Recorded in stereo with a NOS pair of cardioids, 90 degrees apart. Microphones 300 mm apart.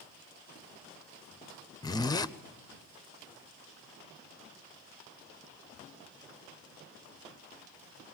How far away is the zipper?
About 0.7 m.